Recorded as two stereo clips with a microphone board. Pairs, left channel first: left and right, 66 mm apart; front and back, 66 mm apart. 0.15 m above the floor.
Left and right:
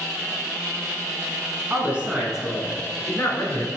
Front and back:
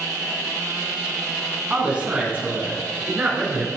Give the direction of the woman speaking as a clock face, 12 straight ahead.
4 o'clock.